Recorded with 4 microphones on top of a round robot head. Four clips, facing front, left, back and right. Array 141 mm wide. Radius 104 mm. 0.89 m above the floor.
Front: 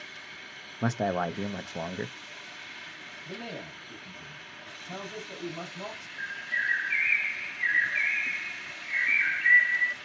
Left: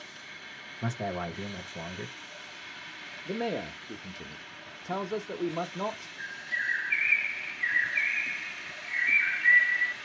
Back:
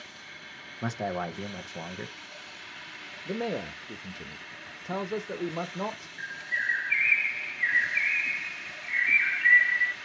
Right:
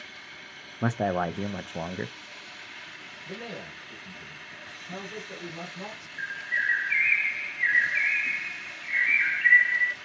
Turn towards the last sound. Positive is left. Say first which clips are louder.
# right 8 dB, front 2 dB
turn(degrees=-70)